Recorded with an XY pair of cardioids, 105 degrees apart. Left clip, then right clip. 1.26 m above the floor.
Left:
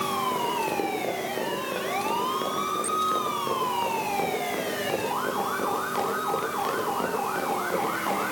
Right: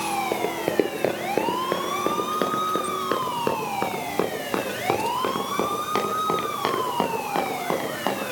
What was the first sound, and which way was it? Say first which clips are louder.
Running footsteps: right 2 dB; 65° right.